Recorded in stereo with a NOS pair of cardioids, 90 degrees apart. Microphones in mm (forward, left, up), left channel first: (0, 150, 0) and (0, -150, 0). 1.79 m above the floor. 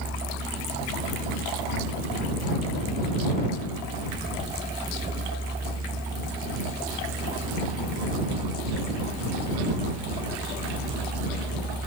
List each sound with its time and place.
0.0 s a vehicle: 15° right